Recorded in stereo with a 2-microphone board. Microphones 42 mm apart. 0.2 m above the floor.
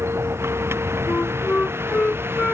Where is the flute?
40° left (ahead or behind).